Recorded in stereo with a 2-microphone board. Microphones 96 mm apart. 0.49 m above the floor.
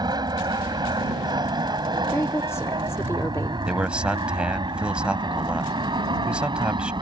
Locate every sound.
0.0 s an aircraft: 45° right (ahead or behind); by 7.0 s 50° right (ahead or behind)
2.1 s a woman speaking: 25° left (ahead or behind)
3.7 s a man speaking: 10° right (ahead or behind)